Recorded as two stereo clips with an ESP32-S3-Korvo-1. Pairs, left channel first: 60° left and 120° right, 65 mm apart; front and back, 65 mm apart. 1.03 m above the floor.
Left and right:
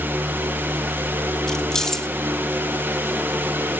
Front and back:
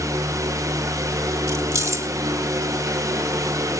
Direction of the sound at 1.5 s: 140° left.